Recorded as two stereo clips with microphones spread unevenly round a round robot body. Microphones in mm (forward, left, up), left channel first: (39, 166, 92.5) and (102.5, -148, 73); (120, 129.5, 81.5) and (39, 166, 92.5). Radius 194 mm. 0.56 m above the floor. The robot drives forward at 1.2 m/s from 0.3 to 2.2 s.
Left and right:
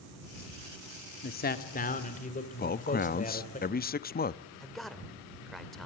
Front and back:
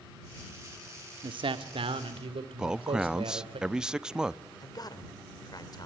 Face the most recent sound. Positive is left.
turn(degrees=10)